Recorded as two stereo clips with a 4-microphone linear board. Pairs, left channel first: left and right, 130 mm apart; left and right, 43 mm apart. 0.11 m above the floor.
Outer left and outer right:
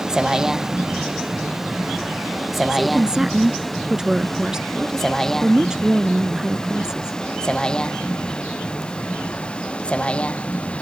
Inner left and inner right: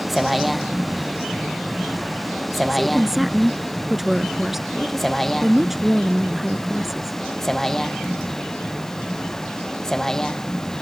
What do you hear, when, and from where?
0.0 s a vehicle: 5° right (ahead or behind); by 10.8 s 10° left (ahead or behind)
2.7 s a woman speaking: 5° right (ahead or behind)